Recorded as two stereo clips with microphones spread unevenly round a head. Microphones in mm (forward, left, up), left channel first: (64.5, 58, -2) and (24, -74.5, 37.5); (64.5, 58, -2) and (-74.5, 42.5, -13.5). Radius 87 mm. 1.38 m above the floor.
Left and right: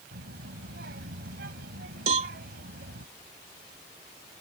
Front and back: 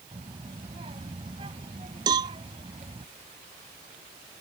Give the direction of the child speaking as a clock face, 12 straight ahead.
4 o'clock.